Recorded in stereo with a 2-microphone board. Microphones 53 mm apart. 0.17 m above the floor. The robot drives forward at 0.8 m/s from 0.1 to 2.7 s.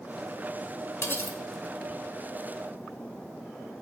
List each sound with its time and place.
1.0 s cutlery clinking: 50° left (ahead or behind), 0.8 m; by 1.4 s 45° left (ahead or behind), 0.9 m